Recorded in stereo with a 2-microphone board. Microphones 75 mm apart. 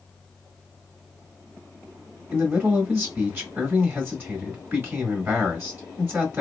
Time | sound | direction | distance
2.3 | a man speaking | 30° right (ahead or behind) | 1.8 m